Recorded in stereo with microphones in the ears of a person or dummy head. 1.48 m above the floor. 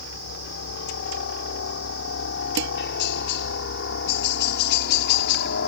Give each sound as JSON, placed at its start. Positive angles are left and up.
{"t": 0.0, "sound": "a helicopter", "side_deg": 65}
{"t": 2.6, "sound": "dishes clattering", "side_deg": -65}